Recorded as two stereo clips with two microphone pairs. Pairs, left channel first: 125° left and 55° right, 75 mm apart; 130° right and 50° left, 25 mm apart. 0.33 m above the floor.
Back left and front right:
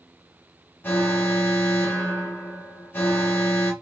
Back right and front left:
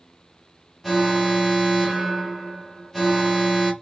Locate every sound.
0.8 s an alarm: 145° left, 0.7 m